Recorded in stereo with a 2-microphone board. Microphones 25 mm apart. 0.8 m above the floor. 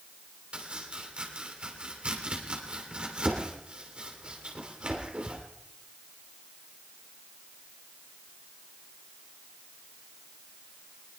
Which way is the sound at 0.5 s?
40° right (ahead or behind).